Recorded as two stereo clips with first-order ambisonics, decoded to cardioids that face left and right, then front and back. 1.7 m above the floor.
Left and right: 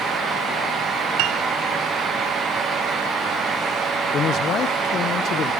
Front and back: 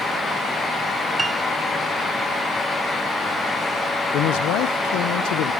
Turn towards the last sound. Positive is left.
turn(degrees=30)